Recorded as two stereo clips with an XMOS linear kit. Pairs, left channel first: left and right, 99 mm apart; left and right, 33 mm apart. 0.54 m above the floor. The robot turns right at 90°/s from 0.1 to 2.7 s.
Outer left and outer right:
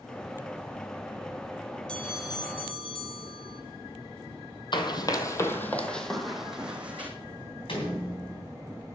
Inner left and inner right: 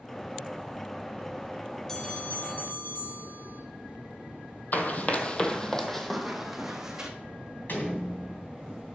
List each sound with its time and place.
1.9 s a bell: 10° left, 1.7 m; by 3.6 s 85° left, 1.7 m
4.7 s running footsteps: 55° left (ahead or behind), 1.0 m; by 7.1 s 15° right (ahead or behind), 1.7 m
7.7 s a door slam: 70° left (ahead or behind), 3 m